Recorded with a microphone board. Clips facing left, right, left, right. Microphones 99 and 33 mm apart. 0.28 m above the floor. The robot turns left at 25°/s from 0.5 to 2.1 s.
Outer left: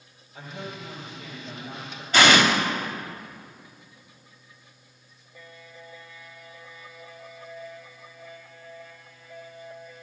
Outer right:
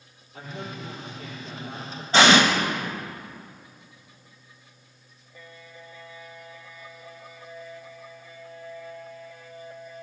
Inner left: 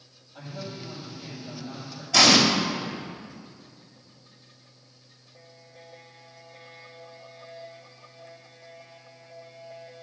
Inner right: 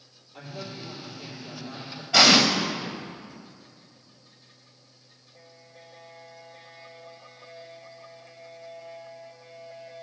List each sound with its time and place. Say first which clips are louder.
0.3 s a woman speaking: outer right 1 dB, even; 45° right, 4.5 m; by 2.0 s 85° right, 4.5 m
2.1 s an explosion: outer right 1 dB, inner right 1 dB; 30° right (ahead or behind), 1.4 m